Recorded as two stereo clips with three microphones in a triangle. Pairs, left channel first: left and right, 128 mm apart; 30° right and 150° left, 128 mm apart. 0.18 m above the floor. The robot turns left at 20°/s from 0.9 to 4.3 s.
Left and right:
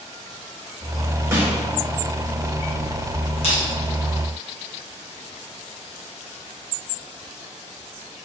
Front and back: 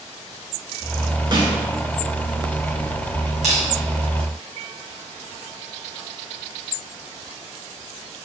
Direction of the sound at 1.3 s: 160° right.